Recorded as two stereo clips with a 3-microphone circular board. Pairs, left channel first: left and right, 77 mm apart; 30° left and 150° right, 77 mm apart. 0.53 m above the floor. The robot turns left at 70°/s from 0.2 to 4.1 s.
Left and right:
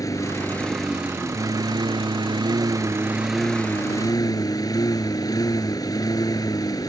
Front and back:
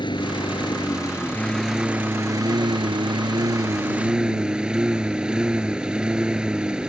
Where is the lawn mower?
45° left; by 6.9 s 130° left.